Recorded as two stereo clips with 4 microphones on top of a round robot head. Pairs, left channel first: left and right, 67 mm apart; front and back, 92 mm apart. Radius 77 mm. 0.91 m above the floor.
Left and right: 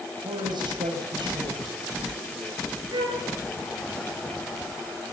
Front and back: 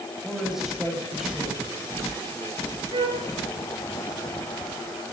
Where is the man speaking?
90° right, 7.5 m.